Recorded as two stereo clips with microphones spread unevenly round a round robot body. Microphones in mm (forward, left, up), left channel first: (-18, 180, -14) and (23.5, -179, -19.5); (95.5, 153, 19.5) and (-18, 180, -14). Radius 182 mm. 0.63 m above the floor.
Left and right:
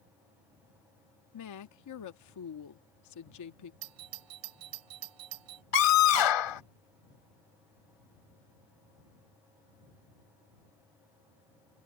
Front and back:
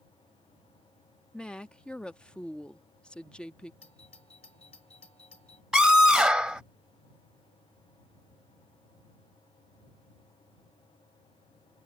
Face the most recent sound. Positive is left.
turn(degrees=80)